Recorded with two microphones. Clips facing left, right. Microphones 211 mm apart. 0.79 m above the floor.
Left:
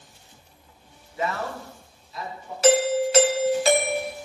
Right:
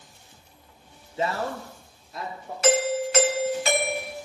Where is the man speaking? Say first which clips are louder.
Right 1 dB; 25° right (ahead or behind), 0.9 m; by 2.5 s 55° right (ahead or behind), 2 m.